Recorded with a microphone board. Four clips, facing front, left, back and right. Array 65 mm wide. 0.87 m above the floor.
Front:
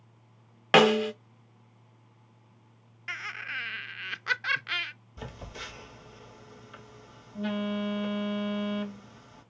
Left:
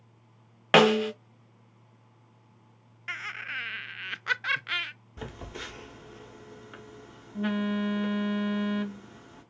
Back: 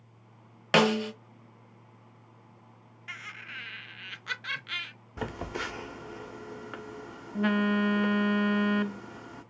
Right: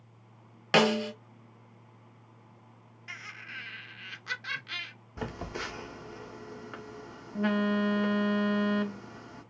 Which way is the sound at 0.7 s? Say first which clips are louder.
Left 5 dB, front 3 dB; 55° left.